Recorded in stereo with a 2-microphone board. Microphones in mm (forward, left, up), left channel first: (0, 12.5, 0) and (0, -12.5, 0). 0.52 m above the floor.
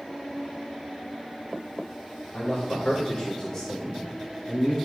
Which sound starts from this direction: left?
A man speaking, at 2.3 s.